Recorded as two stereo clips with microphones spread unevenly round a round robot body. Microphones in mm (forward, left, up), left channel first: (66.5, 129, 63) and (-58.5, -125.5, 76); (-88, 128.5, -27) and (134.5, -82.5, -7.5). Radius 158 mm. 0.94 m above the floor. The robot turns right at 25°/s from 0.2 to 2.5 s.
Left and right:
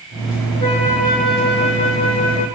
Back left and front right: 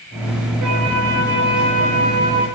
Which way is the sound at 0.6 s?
5° right.